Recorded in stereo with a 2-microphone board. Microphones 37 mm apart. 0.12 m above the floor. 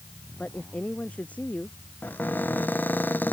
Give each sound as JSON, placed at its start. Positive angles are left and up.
{"t": 0.4, "sound": "a woman speaking", "side_deg": 35}
{"t": 2.0, "sound": "a cupboard door", "side_deg": 55}